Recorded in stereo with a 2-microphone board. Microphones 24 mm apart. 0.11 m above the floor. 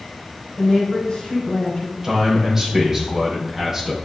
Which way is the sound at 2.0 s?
15° right (ahead or behind).